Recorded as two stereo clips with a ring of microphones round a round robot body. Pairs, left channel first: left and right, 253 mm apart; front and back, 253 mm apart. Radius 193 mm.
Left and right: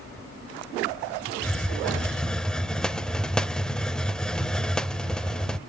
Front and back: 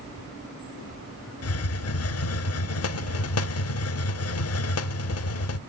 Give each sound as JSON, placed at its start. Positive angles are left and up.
{"t": 1.4, "sound": "a hiss", "azimuth_deg": 5, "distance_m": 0.7}